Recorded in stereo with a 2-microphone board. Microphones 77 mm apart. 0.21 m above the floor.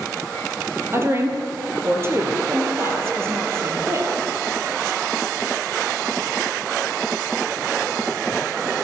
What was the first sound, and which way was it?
A woman speaking, 35° right (ahead or behind).